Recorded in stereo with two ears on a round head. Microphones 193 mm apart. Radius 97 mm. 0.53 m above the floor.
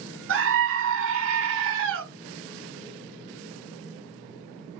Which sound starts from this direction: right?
A scream, at 0.3 s.